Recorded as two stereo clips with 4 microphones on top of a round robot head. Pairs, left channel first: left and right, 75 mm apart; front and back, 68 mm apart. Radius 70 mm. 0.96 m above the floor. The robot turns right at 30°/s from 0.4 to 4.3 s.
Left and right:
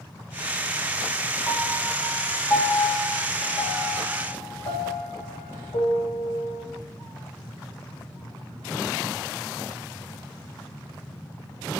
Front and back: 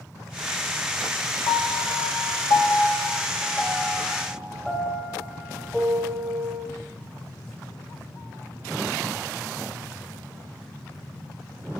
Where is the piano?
10° right, 1.2 m; by 6.7 s 75° left, 1.2 m.